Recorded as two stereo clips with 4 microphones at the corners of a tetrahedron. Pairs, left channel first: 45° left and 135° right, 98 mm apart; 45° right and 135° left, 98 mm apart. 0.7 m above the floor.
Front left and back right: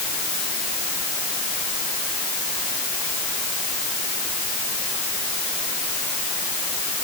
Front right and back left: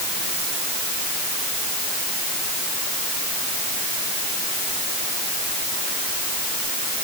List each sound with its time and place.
Only background noise.